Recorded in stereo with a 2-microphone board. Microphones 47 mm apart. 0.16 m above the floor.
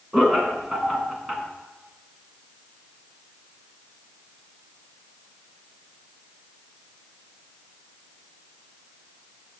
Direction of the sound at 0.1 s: 10° right (ahead or behind).